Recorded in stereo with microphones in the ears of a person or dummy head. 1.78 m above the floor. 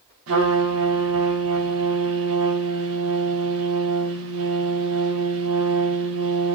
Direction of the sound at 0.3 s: 75° right (ahead or behind).